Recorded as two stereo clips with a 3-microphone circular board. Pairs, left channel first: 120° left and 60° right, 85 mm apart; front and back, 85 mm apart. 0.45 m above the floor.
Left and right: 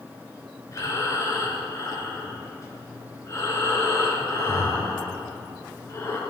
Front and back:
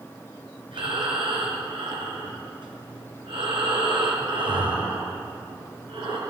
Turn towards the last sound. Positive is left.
turn(degrees=175)